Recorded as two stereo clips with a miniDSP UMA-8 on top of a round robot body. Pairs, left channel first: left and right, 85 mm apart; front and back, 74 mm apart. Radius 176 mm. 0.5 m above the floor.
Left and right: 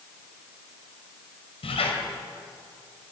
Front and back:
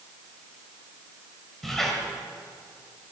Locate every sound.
1.6 s a squeak: 85° left, 1.3 m